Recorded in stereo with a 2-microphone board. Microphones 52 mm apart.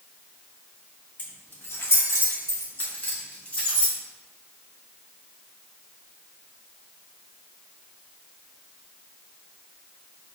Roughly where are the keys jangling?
Left.